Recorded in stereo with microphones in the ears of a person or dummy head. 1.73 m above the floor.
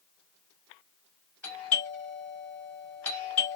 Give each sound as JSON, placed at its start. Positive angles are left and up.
{"t": 1.4, "sound": "a doorbell", "side_deg": 0, "distance_m": 2.5}